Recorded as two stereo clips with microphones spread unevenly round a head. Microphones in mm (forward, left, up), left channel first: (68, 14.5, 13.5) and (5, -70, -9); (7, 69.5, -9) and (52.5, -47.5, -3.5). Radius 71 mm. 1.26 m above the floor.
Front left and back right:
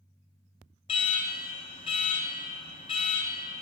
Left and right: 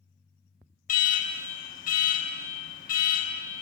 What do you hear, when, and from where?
0.9 s an alarm: 110° left, 1.8 m